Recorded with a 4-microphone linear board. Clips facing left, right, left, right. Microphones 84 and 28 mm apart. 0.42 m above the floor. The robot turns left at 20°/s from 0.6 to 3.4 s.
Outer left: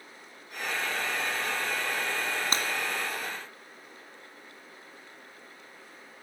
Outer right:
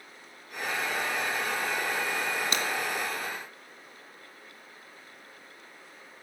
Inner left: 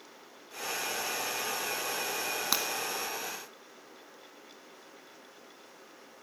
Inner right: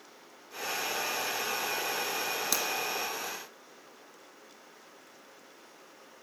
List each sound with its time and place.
2.5 s breaking glass: 40° left (ahead or behind), 1.4 m; by 2.7 s 35° left (ahead or behind), 1.4 m